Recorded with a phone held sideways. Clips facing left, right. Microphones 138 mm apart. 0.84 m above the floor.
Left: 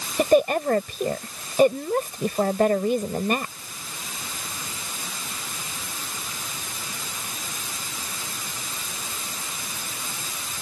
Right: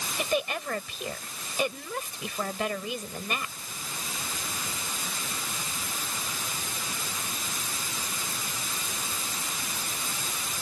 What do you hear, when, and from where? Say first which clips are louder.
0.2 s a woman speaking: left 12 dB; 45° left (ahead or behind)